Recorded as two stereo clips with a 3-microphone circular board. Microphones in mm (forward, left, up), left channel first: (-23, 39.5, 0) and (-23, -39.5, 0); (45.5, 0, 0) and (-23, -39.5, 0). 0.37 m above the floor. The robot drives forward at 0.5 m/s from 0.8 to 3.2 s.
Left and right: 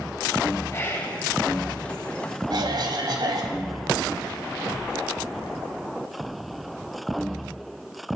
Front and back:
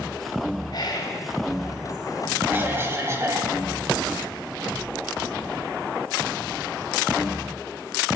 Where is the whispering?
40° left, 2 m.